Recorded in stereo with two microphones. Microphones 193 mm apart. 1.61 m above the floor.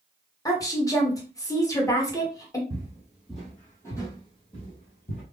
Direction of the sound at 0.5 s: 20° left (ahead or behind).